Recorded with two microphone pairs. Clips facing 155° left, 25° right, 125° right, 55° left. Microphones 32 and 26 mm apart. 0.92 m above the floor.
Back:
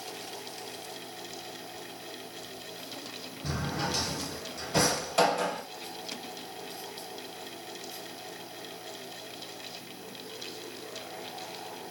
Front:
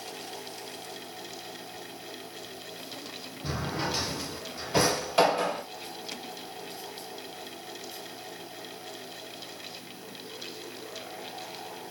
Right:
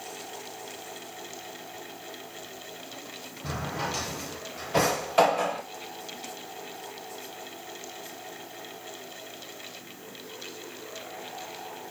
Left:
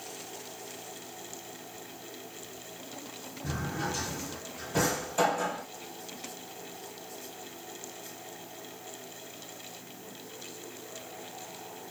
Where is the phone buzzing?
No phone buzzing in this recording.